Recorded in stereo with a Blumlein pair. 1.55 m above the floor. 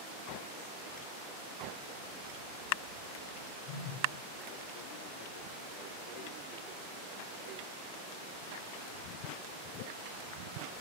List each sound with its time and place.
1.9 s a bird: 50° right, 4 m
3.7 s a phone buzzing: 30° left, 8 m